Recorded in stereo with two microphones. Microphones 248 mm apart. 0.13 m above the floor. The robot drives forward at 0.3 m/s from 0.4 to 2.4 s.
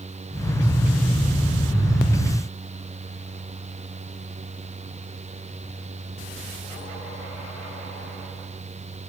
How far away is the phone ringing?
I don't hear a phone ringing.